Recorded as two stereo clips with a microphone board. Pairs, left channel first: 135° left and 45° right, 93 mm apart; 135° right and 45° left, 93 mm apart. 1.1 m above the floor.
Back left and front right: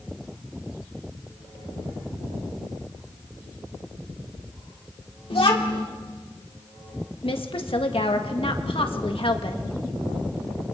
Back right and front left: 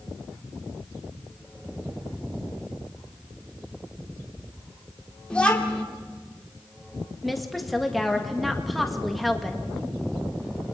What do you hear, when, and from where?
5.3 s a child speaking: 145° left, 1.9 m
7.2 s a woman speaking: 135° left, 1.8 m